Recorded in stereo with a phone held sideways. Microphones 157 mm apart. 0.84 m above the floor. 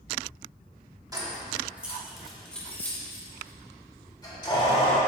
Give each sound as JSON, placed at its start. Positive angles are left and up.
{"t": 1.1, "sound": "keys jangling", "side_deg": -20, "distance_m": 1.4}